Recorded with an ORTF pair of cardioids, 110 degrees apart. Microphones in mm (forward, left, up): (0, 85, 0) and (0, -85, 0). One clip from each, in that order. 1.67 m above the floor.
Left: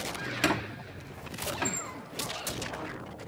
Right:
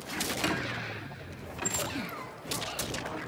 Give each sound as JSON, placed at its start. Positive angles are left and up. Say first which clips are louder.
{"t": 0.4, "sound": "a squeak", "louder": "left 2 dB", "azimuth_deg": 35, "distance_m": 3.0}